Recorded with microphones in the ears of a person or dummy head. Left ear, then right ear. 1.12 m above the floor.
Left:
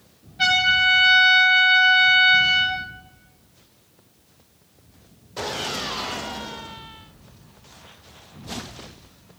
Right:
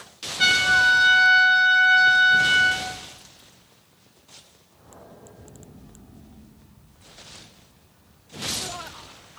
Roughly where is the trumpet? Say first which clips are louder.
Even; centre.